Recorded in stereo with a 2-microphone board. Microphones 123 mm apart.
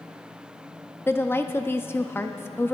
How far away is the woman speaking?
About 0.7 m.